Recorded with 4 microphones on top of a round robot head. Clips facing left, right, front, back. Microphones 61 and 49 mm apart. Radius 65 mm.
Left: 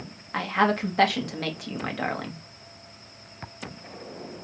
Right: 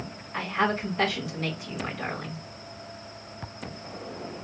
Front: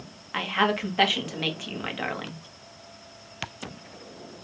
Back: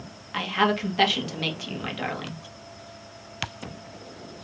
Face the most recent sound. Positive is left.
turn(degrees=75)